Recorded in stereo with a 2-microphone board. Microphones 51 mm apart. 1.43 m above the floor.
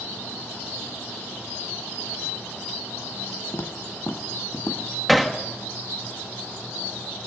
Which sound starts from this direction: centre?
Hammering, at 5.1 s.